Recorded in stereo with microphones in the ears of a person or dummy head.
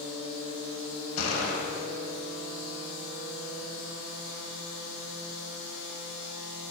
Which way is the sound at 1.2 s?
75° left (ahead or behind).